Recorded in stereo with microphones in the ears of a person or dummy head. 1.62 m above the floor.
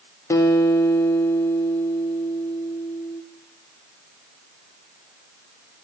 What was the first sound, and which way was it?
A guitar, 20° left (ahead or behind).